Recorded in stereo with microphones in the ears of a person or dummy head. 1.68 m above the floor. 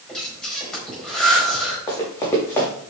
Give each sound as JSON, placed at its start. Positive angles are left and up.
{"t": 0.1, "sound": "breathing", "side_deg": 5, "distance_m": 4.5}
{"t": 1.9, "sound": "running footsteps", "side_deg": 15, "distance_m": 5.0}